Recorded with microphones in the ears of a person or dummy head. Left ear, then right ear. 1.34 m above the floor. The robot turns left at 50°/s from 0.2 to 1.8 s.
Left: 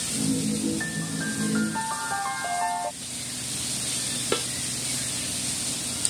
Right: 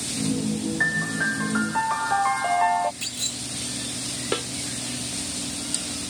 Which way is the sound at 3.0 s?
50° right (ahead or behind).